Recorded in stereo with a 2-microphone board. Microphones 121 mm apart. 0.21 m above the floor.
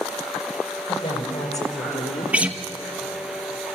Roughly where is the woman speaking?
Left.